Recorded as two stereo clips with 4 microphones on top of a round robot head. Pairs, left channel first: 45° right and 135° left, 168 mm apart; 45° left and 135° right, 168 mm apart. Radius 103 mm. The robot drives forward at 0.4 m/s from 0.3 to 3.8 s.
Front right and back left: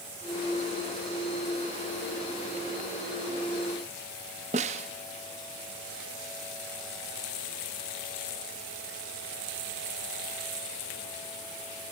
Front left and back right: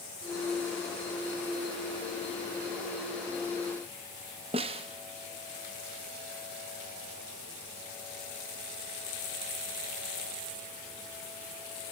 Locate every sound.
4.5 s a snare drum: 175° left, 0.5 m